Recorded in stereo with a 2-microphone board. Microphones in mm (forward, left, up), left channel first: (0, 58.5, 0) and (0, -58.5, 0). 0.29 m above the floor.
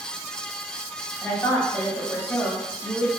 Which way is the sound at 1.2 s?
20° left (ahead or behind).